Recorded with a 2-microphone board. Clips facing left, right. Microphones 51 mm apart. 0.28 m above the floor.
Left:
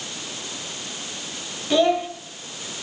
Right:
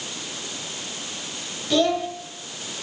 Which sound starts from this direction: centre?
A child speaking, at 1.7 s.